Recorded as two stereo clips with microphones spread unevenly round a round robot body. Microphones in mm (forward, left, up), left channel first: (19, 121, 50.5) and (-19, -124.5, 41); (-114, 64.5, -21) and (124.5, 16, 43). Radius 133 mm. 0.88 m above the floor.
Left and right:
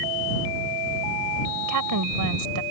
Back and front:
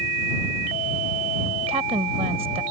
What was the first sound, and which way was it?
A woman speaking, 85° right.